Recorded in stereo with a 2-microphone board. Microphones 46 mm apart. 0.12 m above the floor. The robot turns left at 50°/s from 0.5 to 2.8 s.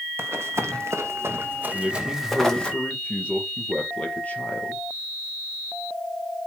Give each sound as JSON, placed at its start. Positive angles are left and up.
{"t": 0.2, "sound": "running footsteps", "side_deg": -65, "distance_m": 1.4}
{"t": 1.7, "sound": "a man speaking", "azimuth_deg": -165, "distance_m": 3.0}